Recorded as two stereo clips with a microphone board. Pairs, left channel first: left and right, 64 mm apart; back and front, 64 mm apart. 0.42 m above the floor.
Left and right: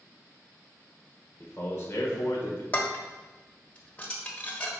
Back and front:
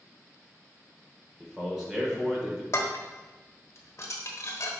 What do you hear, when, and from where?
1.4 s a man speaking: 75° left, 1.2 m
2.7 s dishes clattering: 150° left, 1.0 m